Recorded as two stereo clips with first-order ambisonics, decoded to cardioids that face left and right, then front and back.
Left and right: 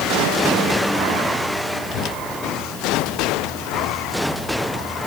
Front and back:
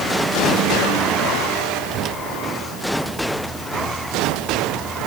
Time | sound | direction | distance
1.9 | a whoosh | 130° left | ?